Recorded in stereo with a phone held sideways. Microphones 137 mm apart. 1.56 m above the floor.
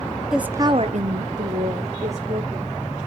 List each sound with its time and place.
0.3 s a woman speaking: 5° right (ahead or behind), 0.9 m; by 2.7 s 50° right (ahead or behind), 2.5 m